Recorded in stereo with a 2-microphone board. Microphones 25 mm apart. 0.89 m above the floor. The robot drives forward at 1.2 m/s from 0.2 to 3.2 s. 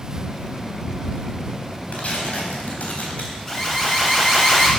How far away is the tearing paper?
About 3.5 m.